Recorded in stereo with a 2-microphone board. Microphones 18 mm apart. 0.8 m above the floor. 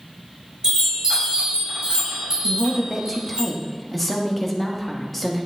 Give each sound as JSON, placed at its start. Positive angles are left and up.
{"t": 0.6, "sound": "a chime", "side_deg": -35, "distance_m": 4.0}
{"t": 2.4, "sound": "a woman speaking", "side_deg": 15, "distance_m": 1.2}